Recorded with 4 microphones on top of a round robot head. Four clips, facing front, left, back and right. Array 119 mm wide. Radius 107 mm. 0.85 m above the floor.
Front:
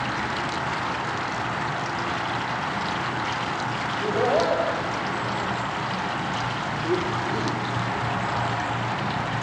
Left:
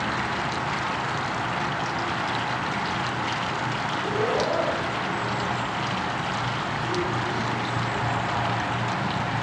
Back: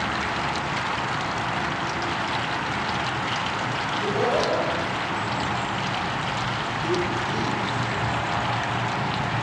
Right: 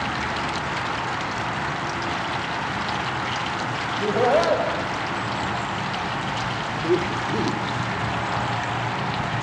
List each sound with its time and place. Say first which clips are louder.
3.9 s laughter: right 7 dB, front 1 dB; 65° right, 6 m; by 7.6 s 75° right, 3 m